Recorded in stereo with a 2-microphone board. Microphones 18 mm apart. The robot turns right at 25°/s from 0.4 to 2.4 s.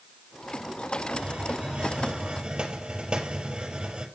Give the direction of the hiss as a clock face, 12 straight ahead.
3 o'clock.